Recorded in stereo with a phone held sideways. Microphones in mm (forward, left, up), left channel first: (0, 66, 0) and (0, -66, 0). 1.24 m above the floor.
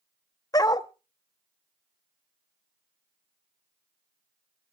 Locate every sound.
0.5 s a dog barking: 30° left (ahead or behind), 0.7 m